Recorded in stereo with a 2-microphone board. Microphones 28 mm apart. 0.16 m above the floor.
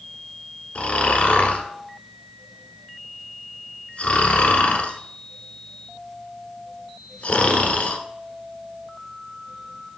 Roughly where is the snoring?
Left.